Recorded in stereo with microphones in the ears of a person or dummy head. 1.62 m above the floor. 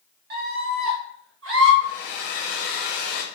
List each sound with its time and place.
0.3 s a scream: 55° right (ahead or behind), 1.0 m; by 1.7 s 85° right, 1.4 m
1.8 s a hair dryer: 45° left (ahead or behind), 0.7 m